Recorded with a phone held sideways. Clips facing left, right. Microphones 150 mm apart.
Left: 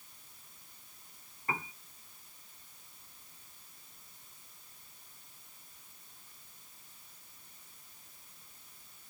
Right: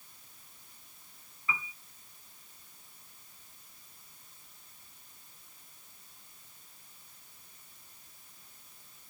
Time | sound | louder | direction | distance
1.5 | a piano | left 2 dB | 50° left (ahead or behind) | ?